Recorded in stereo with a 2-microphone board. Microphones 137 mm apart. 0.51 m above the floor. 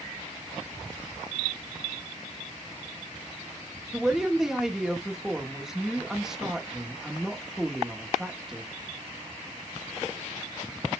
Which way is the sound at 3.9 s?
5° right (ahead or behind).